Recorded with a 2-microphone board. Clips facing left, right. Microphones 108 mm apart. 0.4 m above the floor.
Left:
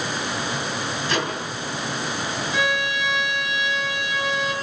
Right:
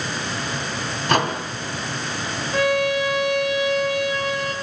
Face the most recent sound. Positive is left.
turn(degrees=-45)  # may be behind; listen again after turning